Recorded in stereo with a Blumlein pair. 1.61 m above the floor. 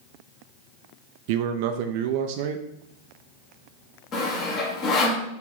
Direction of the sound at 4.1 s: 30° left.